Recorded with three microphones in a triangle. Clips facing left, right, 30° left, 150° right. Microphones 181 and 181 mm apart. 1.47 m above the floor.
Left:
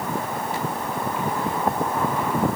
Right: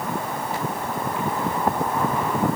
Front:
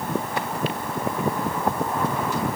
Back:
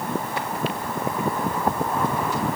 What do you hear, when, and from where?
Only background noise.